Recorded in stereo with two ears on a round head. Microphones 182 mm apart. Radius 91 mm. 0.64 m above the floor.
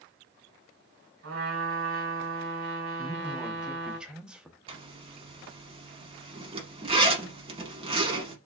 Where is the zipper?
25° right (ahead or behind), 0.9 m.